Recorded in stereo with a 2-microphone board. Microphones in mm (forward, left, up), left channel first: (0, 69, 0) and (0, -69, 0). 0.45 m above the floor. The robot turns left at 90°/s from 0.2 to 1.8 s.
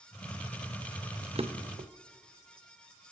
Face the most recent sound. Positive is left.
turn(degrees=-60)  # may be behind; listen again after turning